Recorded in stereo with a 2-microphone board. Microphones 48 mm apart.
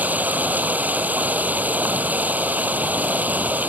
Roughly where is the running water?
Right.